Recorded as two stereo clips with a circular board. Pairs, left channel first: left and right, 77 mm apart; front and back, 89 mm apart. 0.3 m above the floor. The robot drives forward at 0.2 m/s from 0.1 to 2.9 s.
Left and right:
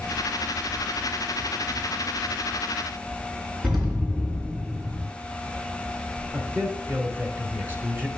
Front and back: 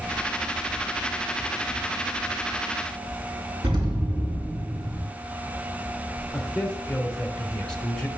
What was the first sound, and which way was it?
An explosion, 170° right.